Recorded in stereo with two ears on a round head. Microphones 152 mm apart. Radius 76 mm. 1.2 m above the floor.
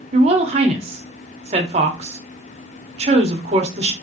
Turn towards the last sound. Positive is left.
turn(degrees=-40)  # may be behind; listen again after turning